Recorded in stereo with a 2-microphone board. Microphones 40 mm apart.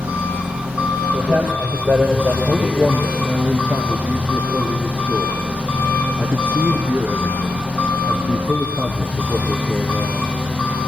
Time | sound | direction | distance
0.0 | an engine running | 25° right (ahead or behind) | 5.5 m
1.1 | a man speaking | 65° right (ahead or behind) | 4.5 m
2.5 | a man speaking | 40° right (ahead or behind) | 2 m